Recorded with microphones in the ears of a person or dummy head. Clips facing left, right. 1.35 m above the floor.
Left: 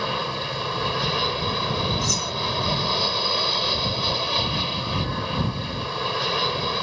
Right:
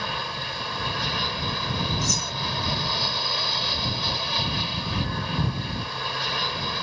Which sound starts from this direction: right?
Cutlery clinking, at 2.0 s.